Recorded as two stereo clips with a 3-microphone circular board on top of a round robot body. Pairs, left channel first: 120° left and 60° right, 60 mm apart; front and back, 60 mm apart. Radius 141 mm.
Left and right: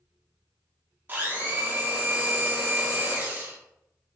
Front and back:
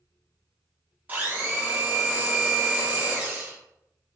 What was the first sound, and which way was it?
A blender, 115° right.